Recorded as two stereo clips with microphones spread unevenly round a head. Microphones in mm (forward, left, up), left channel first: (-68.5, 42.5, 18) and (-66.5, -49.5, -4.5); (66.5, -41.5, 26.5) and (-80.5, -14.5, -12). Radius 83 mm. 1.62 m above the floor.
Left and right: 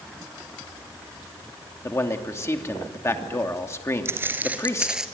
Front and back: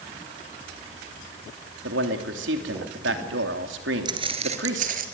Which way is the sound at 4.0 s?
135° right.